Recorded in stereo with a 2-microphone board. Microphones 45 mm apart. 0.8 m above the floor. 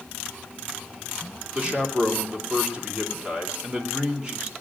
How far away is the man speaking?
About 2.5 m.